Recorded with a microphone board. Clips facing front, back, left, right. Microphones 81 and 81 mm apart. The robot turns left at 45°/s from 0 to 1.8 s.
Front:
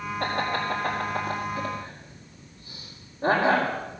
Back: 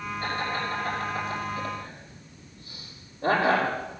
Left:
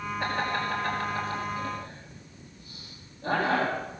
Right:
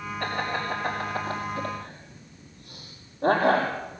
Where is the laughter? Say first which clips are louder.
Front 3 dB, even; 10° left, 4.5 m; by 3.7 s 60° right, 4.5 m.